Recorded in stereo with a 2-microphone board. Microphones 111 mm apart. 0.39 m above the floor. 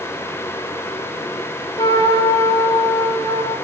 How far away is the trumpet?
About 0.7 m.